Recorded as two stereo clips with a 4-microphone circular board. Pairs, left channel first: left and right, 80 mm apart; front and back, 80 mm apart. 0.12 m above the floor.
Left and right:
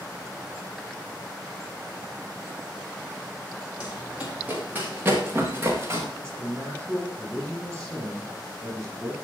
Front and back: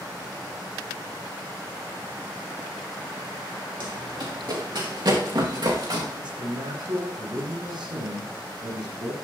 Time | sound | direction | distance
3.8 | running footsteps | 165° right | 5 m
6.2 | a man speaking | 170° left | 5.5 m